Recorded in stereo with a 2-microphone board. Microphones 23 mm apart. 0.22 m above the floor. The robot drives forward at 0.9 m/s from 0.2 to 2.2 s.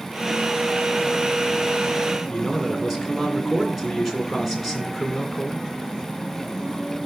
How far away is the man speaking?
About 2.5 m.